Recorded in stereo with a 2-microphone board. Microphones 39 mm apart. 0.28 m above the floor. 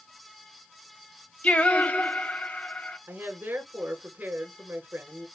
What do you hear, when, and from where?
1.4 s singing: 40° left (ahead or behind), 1.1 m
3.1 s a woman speaking: 60° right (ahead or behind), 3 m